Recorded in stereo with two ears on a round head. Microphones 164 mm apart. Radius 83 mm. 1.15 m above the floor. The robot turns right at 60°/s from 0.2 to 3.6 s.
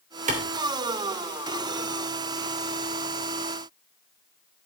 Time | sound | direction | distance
0.3 | a clap | 40° right (ahead or behind) | 2.5 m